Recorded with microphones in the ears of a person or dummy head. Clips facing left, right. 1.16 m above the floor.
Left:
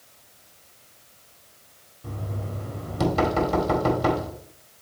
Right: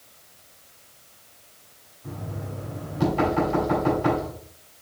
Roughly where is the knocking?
Left.